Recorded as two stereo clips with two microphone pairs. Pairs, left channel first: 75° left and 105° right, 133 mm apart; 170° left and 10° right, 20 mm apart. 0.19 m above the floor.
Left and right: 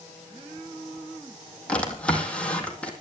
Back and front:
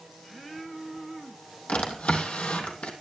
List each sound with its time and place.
1.7 s a drawer: 160° left, 3 m